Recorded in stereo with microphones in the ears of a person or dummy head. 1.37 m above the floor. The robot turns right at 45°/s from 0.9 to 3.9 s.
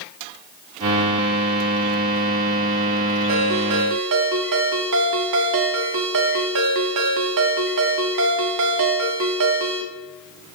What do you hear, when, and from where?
3.3 s a ringtone: 50° right (ahead or behind), 1.4 m; by 9.8 s 60° right (ahead or behind), 1.4 m